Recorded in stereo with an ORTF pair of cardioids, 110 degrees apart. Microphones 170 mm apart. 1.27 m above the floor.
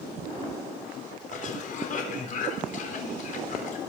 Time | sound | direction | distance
1.3 | a cough | 50° left | 4 m